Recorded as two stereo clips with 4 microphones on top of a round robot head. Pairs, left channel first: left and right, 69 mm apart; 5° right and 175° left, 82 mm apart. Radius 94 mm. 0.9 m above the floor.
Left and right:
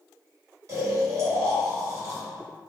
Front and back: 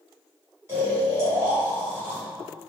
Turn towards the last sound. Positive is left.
turn(degrees=-125)